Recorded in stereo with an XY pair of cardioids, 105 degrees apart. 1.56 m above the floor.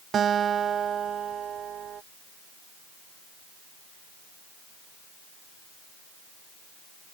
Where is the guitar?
55° right.